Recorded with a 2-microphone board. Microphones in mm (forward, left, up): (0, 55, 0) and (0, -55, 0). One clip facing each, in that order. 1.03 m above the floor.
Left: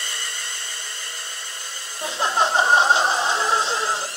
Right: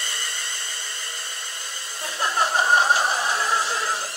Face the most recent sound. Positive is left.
turn(degrees=25)  # may be behind; listen again after turning